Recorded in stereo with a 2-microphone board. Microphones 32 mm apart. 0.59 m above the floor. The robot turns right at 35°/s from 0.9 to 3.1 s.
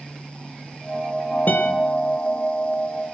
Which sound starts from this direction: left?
A guitar, at 1.5 s.